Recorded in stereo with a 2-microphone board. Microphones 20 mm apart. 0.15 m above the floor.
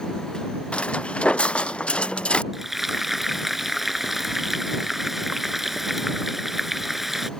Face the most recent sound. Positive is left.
turn(degrees=-15)  # may be behind; listen again after turning